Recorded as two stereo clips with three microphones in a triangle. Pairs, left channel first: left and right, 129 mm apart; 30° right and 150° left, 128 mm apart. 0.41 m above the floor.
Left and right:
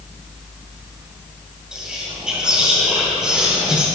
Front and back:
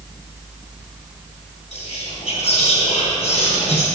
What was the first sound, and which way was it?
Whispering, 5° right.